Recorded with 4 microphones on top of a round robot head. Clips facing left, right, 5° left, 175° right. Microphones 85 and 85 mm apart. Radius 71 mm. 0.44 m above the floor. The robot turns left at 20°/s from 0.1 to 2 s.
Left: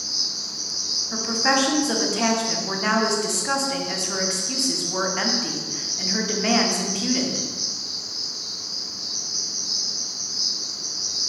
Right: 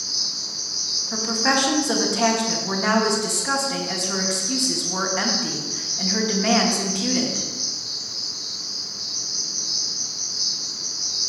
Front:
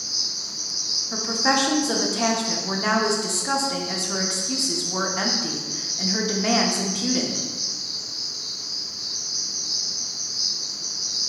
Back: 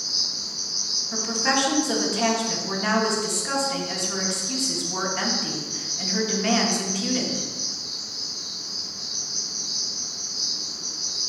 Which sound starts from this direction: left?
An insect, at 0.0 s.